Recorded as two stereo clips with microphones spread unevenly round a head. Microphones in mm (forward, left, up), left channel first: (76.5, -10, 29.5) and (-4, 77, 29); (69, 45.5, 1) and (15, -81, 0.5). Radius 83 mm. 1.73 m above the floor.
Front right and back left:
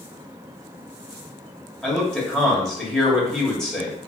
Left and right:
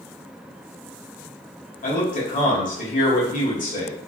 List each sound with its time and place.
1.8 s a man speaking: 40° left, 1.7 m